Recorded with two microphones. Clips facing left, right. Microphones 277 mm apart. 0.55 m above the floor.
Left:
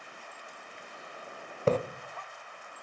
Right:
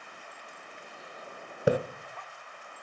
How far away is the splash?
About 0.8 m.